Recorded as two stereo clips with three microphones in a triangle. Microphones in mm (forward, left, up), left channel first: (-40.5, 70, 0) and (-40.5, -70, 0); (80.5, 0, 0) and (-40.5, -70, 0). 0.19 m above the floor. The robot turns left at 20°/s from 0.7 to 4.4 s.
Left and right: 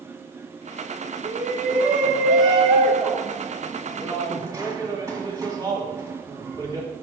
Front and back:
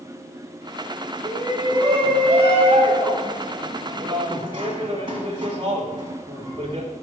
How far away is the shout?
About 1.7 m.